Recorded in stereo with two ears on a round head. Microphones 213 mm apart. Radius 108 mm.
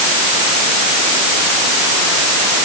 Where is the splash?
I don't hear a splash.